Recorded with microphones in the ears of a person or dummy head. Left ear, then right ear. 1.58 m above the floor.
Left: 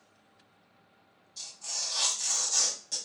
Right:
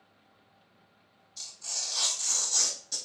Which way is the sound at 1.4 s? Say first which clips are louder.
Even; 15° left (ahead or behind).